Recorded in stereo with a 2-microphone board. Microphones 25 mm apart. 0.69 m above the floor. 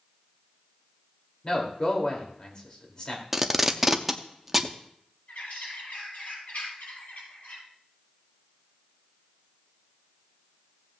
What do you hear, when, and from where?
1.4 s a man speaking: 35° left (ahead or behind), 2.5 m
3.3 s tape being pulled: 10° right (ahead or behind), 0.7 m
5.3 s a bird: 90° left, 7 m